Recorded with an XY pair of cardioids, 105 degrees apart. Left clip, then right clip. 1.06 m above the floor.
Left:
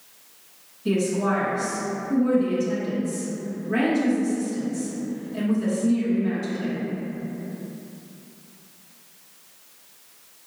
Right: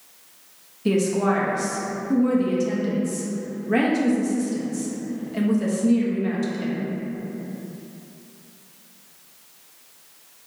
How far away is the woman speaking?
About 1.0 m.